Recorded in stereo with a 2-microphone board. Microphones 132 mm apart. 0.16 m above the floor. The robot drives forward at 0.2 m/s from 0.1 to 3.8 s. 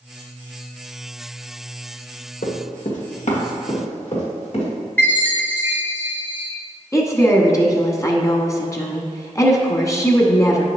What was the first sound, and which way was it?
Running footsteps, 85° left.